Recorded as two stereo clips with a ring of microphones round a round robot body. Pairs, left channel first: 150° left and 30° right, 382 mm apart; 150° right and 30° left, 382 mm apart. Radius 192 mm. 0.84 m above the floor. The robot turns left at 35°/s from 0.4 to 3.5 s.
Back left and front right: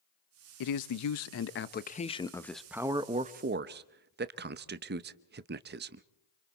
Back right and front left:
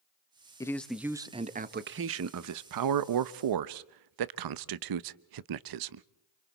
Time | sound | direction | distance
0.6 | a man speaking | 130° left | 0.7 m